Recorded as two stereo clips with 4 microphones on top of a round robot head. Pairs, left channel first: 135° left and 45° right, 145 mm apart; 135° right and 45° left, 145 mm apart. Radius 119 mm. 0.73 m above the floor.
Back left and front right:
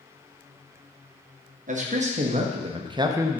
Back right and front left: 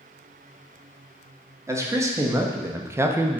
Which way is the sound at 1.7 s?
25° right.